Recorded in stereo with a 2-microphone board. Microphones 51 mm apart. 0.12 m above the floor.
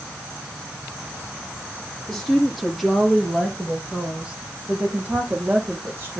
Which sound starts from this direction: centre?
A woman speaking, at 2.1 s.